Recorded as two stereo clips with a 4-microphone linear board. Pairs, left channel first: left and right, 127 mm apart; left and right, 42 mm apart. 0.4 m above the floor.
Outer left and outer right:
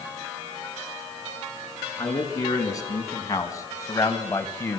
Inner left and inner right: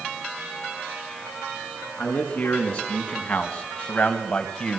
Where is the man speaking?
30° left (ahead or behind), 5 m; by 4.8 s 20° left (ahead or behind), 2 m.